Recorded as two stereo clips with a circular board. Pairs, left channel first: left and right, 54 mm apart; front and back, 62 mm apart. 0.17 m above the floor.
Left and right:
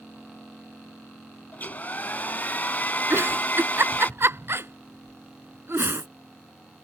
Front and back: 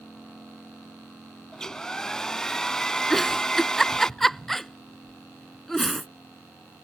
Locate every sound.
1.5 s a hair dryer: 70° left
3.1 s a giggle: 85° right